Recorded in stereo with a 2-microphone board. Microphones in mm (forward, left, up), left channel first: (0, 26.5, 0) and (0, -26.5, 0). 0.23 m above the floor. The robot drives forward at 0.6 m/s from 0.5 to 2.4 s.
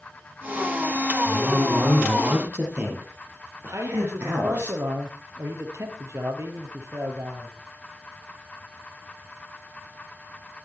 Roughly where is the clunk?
I don't hear a clunk.